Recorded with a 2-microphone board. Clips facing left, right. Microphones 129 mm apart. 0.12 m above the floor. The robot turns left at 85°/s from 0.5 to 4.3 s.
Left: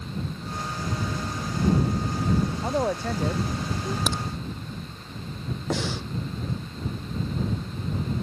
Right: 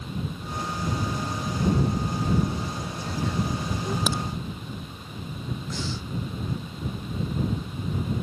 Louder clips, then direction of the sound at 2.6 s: Left 8 dB; 110° left.